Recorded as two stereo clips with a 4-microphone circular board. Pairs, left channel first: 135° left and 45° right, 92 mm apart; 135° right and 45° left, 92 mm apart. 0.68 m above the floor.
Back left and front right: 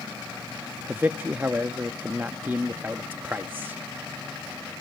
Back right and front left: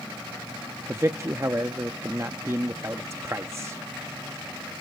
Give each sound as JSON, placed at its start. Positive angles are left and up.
{"t": 0.9, "sound": "a man speaking", "azimuth_deg": 10, "distance_m": 0.5}